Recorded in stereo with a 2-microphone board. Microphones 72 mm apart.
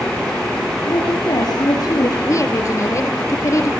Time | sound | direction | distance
0.9 | a woman speaking | 70° left (ahead or behind) | 5.5 m
2.2 | a woman speaking | 50° left (ahead or behind) | 1.8 m